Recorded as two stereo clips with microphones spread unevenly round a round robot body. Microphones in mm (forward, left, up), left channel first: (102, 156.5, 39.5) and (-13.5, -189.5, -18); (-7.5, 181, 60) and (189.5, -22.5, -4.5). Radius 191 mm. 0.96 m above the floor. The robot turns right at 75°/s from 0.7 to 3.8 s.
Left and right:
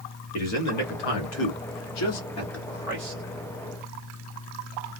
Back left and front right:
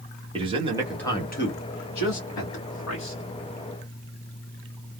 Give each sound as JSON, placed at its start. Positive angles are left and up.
{"t": 0.3, "sound": "a man speaking", "azimuth_deg": 25, "distance_m": 1.3}